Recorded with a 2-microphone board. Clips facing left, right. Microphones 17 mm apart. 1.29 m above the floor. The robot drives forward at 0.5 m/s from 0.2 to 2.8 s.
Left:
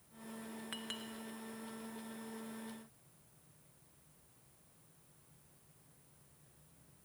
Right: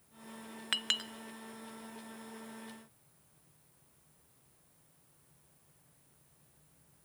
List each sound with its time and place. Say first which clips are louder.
0.7 s a clink: right 14 dB; 55° right (ahead or behind), 0.5 m; by 1.1 s 50° right (ahead or behind), 0.6 m